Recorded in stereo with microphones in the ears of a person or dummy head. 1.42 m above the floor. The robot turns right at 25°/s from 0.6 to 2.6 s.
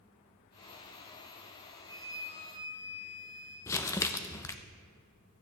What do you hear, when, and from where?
1.9 s a flute: 60° left (ahead or behind), 2.5 m; by 3.6 s 40° left (ahead or behind), 2.5 m
3.7 s crumpling: 15° left (ahead or behind), 0.6 m